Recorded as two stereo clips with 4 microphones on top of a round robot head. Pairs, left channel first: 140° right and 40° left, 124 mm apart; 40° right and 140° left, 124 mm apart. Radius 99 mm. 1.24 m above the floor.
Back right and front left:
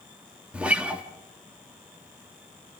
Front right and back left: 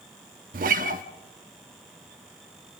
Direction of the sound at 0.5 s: 120° left.